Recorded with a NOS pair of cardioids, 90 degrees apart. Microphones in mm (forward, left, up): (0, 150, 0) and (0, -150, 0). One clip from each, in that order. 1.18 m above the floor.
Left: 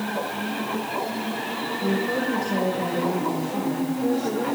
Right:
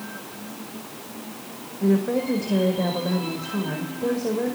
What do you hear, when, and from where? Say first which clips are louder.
1.8 s a woman speaking: right 3 dB; 25° right, 5 m